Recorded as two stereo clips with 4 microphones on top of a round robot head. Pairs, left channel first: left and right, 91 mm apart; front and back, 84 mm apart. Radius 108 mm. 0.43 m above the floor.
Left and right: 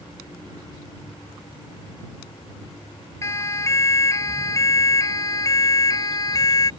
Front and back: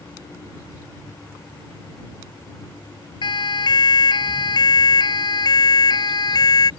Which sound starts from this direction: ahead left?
A siren, at 3.2 s.